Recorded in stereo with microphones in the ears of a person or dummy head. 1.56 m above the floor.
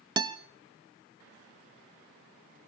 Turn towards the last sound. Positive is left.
turn(degrees=-25)  # may be behind; listen again after turning